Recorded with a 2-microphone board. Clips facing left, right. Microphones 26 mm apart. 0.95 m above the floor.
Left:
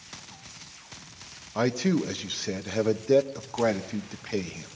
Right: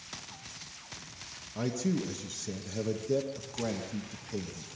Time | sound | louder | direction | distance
1.6 | a man speaking | left 7 dB | 45° left (ahead or behind) | 1.0 m